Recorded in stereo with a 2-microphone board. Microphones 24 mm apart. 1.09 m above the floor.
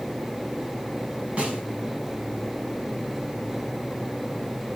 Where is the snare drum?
75° right (ahead or behind), 5 m.